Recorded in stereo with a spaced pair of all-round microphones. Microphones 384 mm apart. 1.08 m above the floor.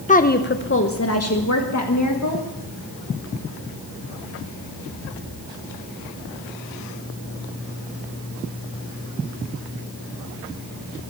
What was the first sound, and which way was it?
A woman speaking, 20° left (ahead or behind).